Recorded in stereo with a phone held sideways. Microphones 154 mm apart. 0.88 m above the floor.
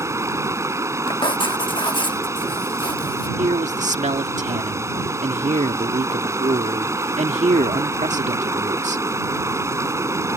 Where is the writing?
30° left (ahead or behind).